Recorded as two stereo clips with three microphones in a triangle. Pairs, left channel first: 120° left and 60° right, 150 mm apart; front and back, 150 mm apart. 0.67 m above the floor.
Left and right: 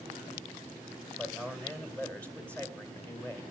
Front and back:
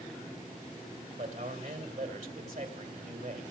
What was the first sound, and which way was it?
A man speaking, 160° right.